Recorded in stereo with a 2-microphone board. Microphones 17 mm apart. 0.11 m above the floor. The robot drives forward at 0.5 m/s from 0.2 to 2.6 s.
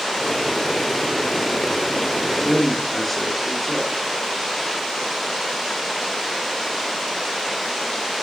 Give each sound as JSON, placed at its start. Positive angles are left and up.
{"t": 2.5, "sound": "a man speaking", "side_deg": 15, "distance_m": 1.7}